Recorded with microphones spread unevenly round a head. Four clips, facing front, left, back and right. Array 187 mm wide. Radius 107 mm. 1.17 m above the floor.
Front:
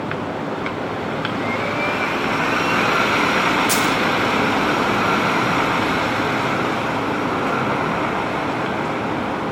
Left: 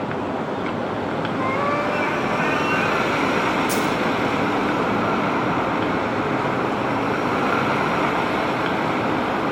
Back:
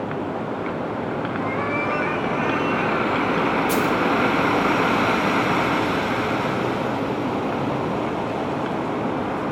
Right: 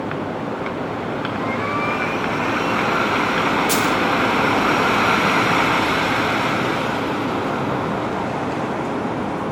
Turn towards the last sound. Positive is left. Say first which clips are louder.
# right 2 dB, front 1 dB
turn(degrees=5)